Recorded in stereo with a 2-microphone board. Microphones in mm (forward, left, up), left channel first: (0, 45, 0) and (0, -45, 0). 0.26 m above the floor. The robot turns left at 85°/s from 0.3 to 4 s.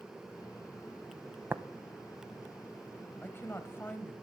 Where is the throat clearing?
No throat clearing in this recording.